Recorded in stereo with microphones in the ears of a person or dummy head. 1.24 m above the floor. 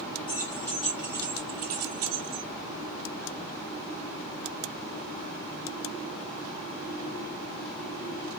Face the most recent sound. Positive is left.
turn(degrees=-70)  # may be behind; listen again after turning